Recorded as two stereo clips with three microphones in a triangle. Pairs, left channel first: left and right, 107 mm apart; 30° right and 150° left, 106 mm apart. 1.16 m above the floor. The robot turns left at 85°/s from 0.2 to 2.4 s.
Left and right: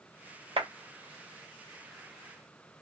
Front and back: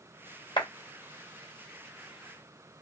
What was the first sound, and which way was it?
A clap, 70° right.